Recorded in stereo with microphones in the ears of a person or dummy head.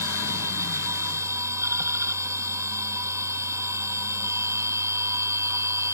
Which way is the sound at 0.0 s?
20° right (ahead or behind).